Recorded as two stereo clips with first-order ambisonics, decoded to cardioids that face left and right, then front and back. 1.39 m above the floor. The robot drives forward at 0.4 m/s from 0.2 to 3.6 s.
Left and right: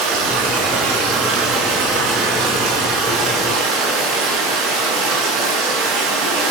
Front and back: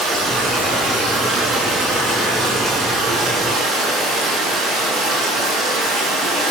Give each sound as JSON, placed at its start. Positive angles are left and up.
{"t": 0.0, "sound": "running water", "azimuth_deg": -115, "distance_m": 9.5}